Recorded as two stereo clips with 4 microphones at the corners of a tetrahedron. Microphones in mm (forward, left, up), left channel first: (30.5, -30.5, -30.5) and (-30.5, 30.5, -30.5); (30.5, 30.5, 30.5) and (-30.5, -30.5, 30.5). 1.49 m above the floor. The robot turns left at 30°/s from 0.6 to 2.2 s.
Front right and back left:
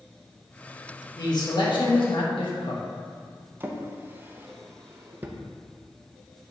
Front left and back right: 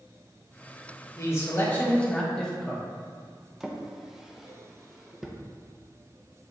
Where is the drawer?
145° left, 0.7 m.